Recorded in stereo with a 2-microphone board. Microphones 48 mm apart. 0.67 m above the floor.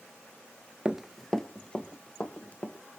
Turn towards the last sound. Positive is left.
turn(degrees=30)  # may be behind; listen again after turning